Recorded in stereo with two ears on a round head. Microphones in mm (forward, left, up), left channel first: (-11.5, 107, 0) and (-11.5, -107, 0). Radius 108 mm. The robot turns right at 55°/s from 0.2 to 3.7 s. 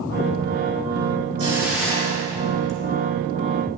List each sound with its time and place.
1.4 s a hiss: 25° right, 3 m; by 2.8 s 55° left, 3 m